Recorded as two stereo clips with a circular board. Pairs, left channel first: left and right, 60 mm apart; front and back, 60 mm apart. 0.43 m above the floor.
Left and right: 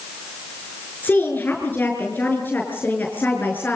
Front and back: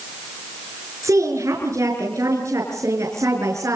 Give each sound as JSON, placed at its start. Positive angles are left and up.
{"t": 1.0, "sound": "a woman speaking", "azimuth_deg": 155, "distance_m": 6.0}